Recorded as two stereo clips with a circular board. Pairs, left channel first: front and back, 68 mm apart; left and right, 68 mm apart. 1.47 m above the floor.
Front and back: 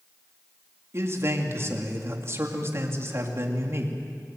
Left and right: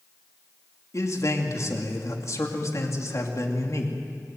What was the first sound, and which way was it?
A man speaking, 130° left.